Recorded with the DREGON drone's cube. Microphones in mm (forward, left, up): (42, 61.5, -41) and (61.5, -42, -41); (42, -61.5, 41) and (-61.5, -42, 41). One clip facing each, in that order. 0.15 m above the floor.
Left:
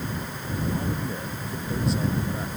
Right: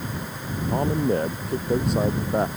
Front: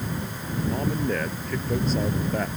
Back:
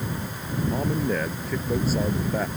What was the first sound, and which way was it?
A man speaking, 105° right.